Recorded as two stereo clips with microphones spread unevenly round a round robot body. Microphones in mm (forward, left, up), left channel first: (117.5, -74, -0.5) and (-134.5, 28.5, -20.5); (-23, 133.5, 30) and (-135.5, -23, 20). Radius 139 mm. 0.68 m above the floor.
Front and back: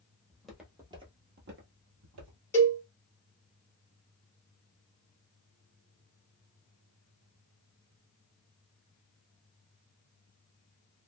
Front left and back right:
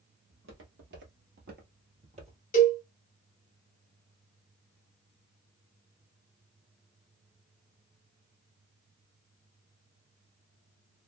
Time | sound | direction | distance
0.3 | footsteps | 105° right | 1.2 m
2.5 | a cowbell | 60° left | 1.4 m